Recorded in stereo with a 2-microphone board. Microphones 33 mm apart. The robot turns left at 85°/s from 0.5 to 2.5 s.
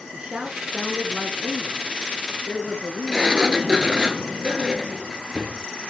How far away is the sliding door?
About 1.0 m.